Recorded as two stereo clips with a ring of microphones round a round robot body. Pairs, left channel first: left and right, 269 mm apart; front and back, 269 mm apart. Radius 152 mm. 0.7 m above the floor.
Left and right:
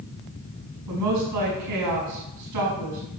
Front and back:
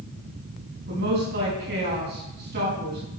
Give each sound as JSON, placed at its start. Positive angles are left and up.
{"t": 0.9, "sound": "a woman speaking", "azimuth_deg": -120, "distance_m": 5.0}